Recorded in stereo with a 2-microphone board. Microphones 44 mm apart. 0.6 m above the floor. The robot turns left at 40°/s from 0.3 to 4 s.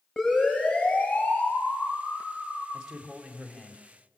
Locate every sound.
0.2 s a siren: centre (ahead or behind), 9 m; by 2.6 s 85° left, 9.5 m
2.7 s a man speaking: 165° right, 2.5 m; by 3.8 s 150° left, 2.5 m